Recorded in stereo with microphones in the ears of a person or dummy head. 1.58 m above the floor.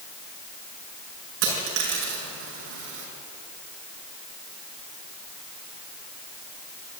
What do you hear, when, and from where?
1.4 s a dropped coin: 65° right (ahead or behind), 6 m